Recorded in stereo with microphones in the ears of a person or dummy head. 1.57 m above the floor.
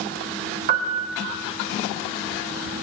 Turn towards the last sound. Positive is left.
turn(degrees=-50)  # may be behind; listen again after turning